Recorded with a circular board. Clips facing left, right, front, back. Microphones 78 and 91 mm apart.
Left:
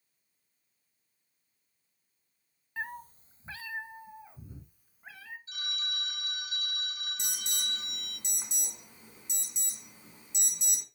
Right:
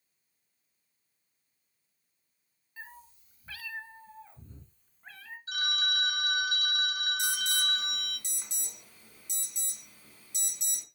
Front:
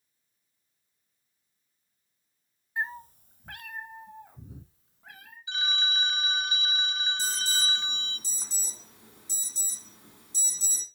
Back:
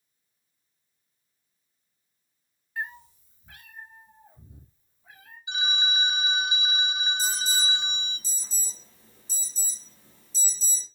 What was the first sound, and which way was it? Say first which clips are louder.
A cat meowing: left 9 dB, front 2 dB; 65° left.